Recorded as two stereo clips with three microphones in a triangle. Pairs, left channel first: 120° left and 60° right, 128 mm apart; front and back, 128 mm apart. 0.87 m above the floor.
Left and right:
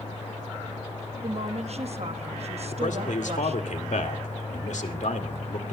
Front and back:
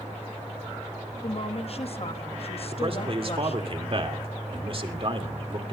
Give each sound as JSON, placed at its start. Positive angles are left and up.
{"t": 1.2, "sound": "a woman speaking", "azimuth_deg": -35, "distance_m": 1.1}
{"t": 2.7, "sound": "a man speaking", "azimuth_deg": 135, "distance_m": 2.0}